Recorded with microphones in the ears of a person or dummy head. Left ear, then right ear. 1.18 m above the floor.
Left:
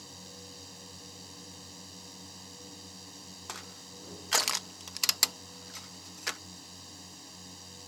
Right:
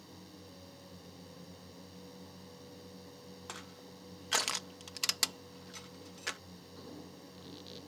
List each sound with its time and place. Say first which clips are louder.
0.0 s a drone: left 6 dB; 40° left (ahead or behind)
3.5 s crushing: left 4 dB; 20° left (ahead or behind)